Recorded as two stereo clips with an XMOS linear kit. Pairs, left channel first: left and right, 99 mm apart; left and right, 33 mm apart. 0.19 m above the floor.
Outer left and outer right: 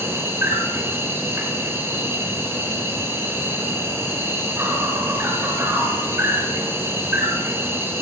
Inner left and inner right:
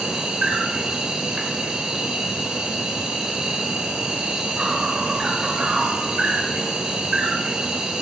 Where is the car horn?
I don't hear a car horn.